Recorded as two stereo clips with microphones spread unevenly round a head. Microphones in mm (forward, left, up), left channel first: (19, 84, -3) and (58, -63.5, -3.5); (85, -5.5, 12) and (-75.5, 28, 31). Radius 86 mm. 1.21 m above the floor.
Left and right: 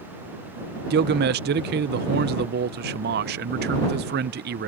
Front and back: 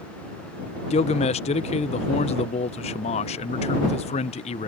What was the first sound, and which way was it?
A man speaking, 65° right.